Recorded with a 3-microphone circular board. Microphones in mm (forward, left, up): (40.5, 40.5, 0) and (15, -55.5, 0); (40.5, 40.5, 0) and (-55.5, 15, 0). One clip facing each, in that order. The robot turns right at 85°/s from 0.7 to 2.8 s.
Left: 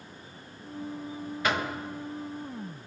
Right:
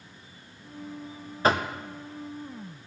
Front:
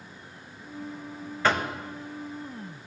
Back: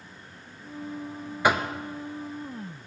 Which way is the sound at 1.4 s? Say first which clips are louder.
Right 5 dB, back 2 dB; 100° right.